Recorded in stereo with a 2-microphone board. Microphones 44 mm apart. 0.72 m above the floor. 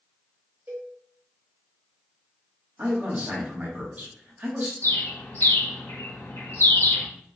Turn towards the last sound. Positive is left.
turn(degrees=60)  # may be behind; listen again after turning